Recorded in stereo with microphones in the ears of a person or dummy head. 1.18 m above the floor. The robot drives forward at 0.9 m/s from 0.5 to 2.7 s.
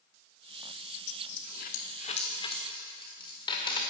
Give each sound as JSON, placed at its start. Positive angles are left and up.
{"t": 1.1, "sound": "a dropped coin", "side_deg": 60, "distance_m": 0.9}